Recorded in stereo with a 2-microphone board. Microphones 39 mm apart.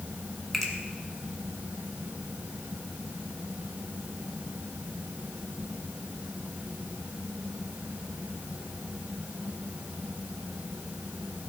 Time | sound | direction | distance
0.5 | a finger snap | 5° left (ahead or behind) | 1.7 m